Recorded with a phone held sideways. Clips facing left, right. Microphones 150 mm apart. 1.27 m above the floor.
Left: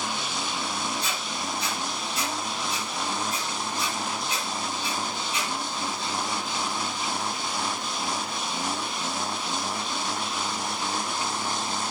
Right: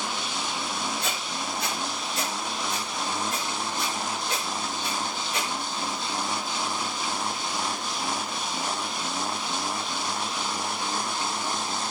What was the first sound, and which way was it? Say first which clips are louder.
A squeak: even; 55° right (ahead or behind).